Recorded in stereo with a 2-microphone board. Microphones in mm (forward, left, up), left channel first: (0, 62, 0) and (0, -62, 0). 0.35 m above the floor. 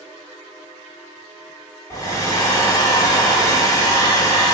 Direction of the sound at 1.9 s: 30° left (ahead or behind).